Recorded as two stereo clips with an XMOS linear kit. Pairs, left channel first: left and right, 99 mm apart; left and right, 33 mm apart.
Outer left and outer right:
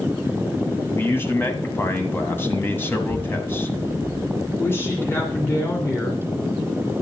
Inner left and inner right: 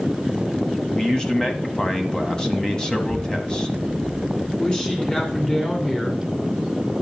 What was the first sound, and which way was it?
A man speaking, 25° left (ahead or behind).